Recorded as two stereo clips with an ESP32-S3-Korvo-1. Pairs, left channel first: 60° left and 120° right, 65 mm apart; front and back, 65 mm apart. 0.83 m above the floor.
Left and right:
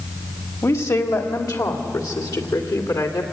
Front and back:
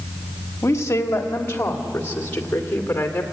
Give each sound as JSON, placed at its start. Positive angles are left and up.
{"t": 0.6, "sound": "a woman speaking", "azimuth_deg": 40, "distance_m": 2.0}